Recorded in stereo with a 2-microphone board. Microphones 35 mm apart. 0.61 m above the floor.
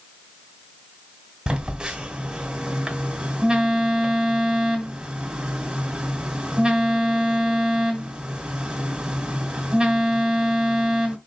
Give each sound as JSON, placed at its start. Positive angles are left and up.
{"t": 1.5, "sound": "a phone buzzing", "side_deg": -20, "distance_m": 2.0}